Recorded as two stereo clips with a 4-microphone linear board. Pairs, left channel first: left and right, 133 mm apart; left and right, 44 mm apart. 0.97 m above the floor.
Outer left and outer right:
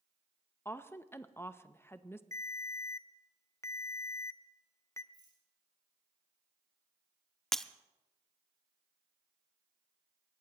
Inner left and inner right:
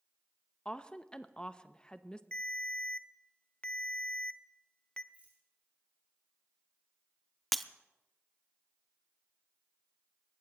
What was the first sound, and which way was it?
A woman speaking, 20° left (ahead or behind).